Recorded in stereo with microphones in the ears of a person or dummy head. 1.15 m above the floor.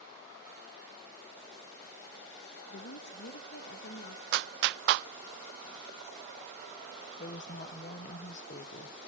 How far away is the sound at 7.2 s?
About 0.5 m.